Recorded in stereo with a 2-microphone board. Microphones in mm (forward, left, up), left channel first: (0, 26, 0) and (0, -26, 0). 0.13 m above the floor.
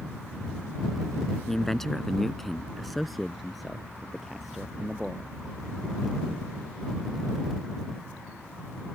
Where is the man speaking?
5° left (ahead or behind); by 5.3 s 5° right (ahead or behind).